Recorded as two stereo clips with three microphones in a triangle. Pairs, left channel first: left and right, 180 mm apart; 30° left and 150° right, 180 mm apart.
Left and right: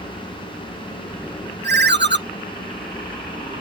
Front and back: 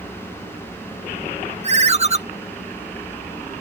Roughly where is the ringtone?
Right.